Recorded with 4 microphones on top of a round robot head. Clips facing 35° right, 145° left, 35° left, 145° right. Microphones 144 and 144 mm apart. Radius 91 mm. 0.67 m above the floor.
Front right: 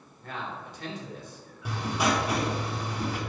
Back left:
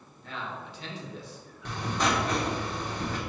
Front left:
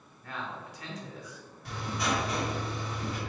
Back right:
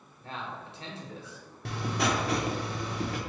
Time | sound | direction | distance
0.2 | a man speaking | 80° right | 1.9 m
1.6 | writing | 115° right | 1.0 m